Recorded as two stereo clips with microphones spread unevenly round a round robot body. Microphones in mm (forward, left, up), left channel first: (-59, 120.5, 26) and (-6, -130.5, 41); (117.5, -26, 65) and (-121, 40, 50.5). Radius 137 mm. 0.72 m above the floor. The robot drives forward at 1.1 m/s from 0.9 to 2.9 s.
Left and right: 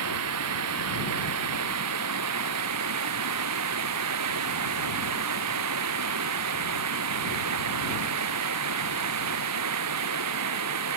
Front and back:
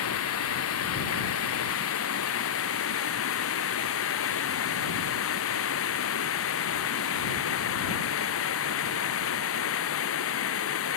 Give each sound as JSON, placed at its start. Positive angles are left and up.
{"t": 0.0, "sound": "running water", "azimuth_deg": -45}